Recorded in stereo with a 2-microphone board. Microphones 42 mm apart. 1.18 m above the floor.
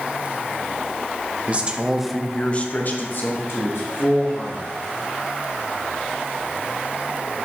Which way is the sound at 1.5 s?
35° right (ahead or behind).